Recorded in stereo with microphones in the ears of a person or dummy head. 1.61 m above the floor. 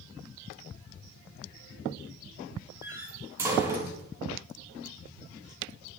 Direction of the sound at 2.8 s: 15° right (ahead or behind).